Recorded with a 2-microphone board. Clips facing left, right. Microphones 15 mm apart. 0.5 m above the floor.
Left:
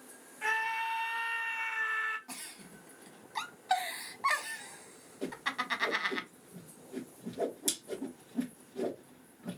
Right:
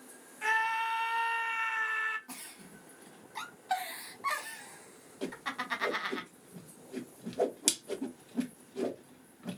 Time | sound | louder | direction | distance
0.4 | a scream | right 2 dB | 15° right (ahead or behind) | 1.4 m
2.3 | a giggle | left 1 dB | 20° left (ahead or behind) | 0.8 m
5.2 | a whoosh | left 2 dB | 50° right (ahead or behind) | 0.9 m